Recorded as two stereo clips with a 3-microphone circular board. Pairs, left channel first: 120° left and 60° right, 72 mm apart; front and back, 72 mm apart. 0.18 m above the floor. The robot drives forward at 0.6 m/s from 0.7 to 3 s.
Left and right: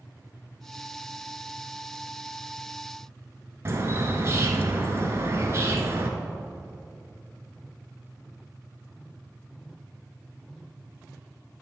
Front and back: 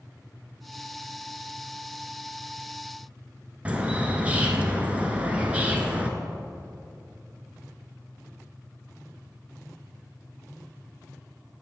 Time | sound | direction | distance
3.6 | a bird | 110° right | 1.1 m